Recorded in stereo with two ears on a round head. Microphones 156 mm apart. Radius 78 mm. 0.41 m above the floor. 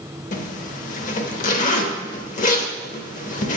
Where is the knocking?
No knocking in this recording.